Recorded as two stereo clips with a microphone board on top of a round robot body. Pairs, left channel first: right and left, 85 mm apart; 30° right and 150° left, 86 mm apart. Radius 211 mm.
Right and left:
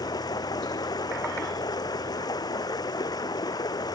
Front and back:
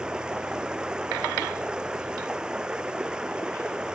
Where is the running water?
130° right.